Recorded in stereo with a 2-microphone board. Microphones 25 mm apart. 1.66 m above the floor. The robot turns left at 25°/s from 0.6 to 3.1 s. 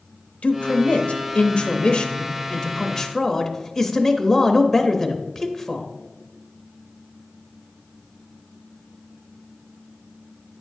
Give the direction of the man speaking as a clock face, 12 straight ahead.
10 o'clock.